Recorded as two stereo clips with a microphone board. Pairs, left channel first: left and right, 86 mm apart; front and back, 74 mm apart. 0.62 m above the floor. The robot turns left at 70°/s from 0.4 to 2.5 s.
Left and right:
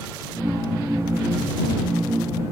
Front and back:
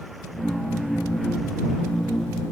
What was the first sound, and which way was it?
Only background noise.